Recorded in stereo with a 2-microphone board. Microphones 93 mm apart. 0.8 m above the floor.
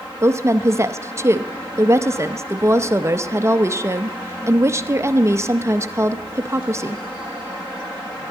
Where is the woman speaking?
30° right (ahead or behind), 0.5 m.